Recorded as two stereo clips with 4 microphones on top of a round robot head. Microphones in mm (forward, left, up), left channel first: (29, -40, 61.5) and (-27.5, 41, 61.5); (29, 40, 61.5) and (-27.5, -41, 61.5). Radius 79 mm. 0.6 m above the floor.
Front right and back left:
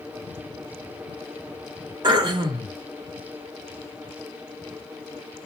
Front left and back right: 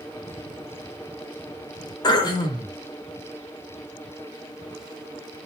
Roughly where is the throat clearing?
Left.